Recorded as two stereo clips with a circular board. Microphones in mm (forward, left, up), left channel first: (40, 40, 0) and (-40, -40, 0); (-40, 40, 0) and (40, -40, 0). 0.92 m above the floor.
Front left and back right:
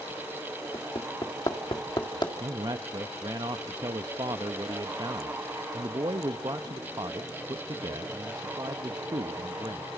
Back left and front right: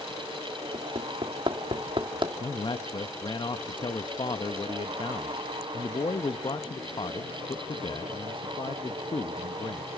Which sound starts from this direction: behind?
A man speaking, at 2.4 s.